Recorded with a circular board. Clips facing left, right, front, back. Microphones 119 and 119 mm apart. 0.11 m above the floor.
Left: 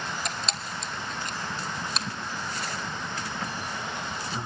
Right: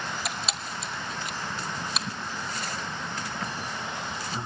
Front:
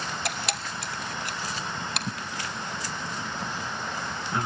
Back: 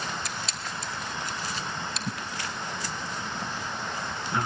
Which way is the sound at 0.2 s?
5° right.